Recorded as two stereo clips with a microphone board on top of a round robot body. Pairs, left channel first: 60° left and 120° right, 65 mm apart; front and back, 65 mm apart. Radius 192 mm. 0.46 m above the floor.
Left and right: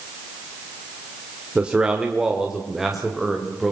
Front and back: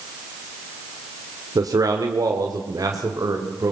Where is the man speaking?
170° left, 2 m; by 3.7 s 150° left, 3 m.